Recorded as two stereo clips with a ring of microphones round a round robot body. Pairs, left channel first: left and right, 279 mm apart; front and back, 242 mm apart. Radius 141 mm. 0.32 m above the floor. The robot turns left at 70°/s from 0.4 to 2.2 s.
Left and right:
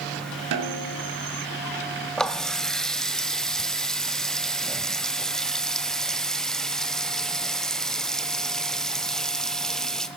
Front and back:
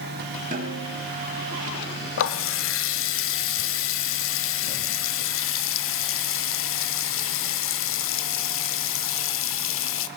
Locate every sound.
0.5 s a snare drum: 115° right, 4 m; by 1.1 s 155° right, 4 m
2.2 s a running tap: 5° left, 1.2 m